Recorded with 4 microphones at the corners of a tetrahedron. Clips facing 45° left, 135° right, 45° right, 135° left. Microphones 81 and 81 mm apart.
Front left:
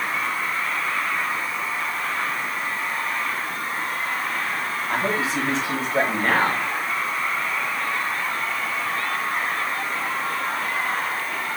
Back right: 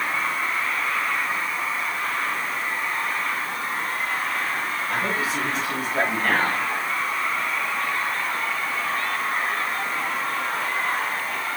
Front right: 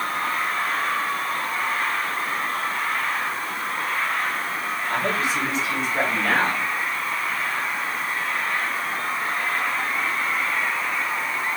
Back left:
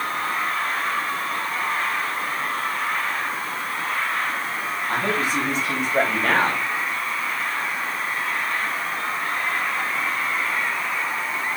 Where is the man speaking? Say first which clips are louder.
Front left 3 dB, back left 1 dB; 105° left, 3.5 m; by 6.7 s 100° left, 2.5 m.